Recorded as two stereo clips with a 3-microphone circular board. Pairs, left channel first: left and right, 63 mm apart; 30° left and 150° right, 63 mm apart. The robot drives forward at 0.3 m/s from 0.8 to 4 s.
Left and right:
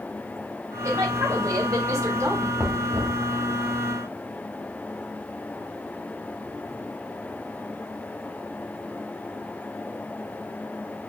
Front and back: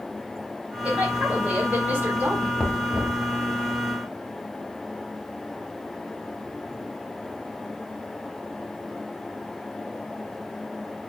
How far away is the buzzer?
No buzzer in this recording.